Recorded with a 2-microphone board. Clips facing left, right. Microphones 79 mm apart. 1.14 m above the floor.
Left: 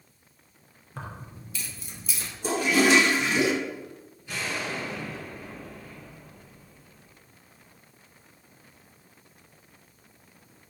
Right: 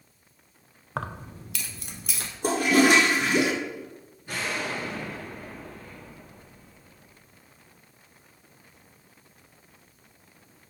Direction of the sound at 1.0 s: 65° right (ahead or behind).